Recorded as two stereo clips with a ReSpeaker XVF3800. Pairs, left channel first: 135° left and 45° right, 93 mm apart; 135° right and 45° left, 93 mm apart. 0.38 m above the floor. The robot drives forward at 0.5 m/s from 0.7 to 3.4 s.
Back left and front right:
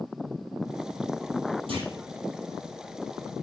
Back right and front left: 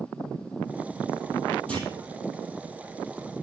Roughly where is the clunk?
Ahead right.